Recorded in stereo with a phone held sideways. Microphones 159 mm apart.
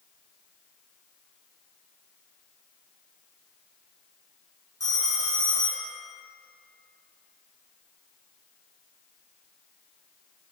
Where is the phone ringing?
20° left (ahead or behind), 0.7 m.